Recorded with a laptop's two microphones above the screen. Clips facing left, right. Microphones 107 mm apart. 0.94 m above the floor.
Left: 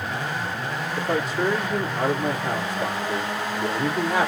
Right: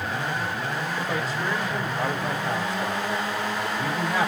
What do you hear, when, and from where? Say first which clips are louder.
1.0 s a man speaking: left 4 dB; 70° left (ahead or behind), 1.6 m